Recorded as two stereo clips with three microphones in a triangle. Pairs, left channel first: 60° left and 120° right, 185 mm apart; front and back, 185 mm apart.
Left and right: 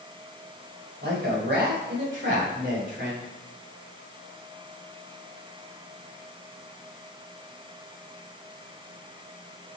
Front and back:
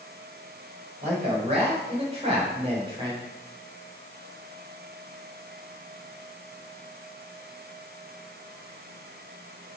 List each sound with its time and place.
1.0 s a man speaking: 130° right, 4.5 m; by 3.2 s 115° right, 2.5 m